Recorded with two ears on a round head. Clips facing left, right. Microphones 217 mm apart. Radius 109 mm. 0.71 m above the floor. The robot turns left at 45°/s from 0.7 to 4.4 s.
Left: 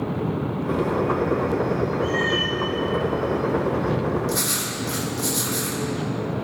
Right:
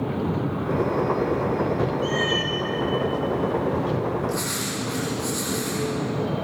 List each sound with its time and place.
2.0 s a cat meowing: 30° right (ahead or behind), 5.5 m; by 2.6 s 5° right (ahead or behind), 5.5 m
4.3 s writing: 50° left (ahead or behind), 6.5 m; by 5.8 s 45° left (ahead or behind), 6.5 m